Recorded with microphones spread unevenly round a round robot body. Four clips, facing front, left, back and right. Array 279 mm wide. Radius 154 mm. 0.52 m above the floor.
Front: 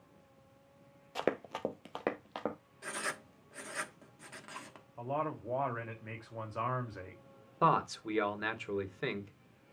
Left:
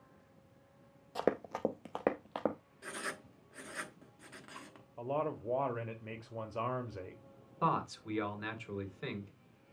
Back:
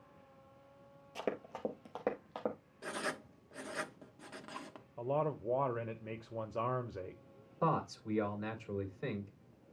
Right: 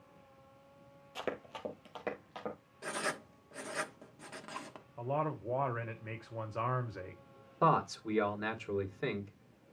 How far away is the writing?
About 0.9 m.